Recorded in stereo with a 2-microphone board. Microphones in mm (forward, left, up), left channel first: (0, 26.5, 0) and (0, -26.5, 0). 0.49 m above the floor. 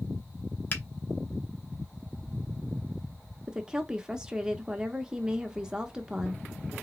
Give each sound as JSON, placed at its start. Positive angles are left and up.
{"t": 0.7, "sound": "a finger snap", "side_deg": 40, "distance_m": 1.4}
{"t": 3.5, "sound": "a woman speaking", "side_deg": -10, "distance_m": 0.7}